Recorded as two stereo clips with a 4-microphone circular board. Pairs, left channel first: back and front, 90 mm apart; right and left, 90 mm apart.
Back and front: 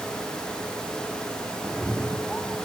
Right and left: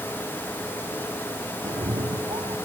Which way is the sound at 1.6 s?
95° left.